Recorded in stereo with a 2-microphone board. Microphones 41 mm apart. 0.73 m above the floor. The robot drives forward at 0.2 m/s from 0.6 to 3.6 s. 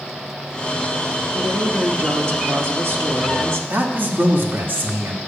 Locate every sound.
1.3 s a woman speaking: 65° right (ahead or behind), 1.2 m
3.7 s a man speaking: 50° right (ahead or behind), 1.4 m